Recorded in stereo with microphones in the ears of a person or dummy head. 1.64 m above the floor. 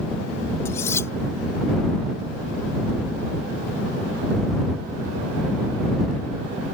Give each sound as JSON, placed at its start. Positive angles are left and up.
{"t": 0.7, "sound": "cutlery clinking", "side_deg": 10}